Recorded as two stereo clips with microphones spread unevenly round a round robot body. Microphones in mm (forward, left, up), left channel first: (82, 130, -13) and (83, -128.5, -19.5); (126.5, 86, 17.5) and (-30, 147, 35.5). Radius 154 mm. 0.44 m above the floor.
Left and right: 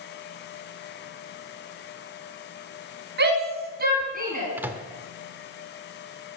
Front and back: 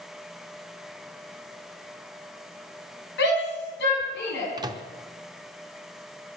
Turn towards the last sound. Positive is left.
turn(degrees=-160)